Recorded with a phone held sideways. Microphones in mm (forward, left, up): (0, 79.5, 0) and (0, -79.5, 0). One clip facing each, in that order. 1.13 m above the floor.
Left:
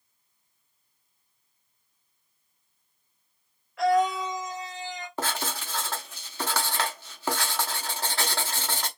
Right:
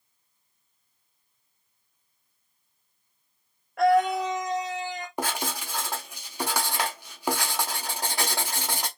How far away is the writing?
About 0.9 m.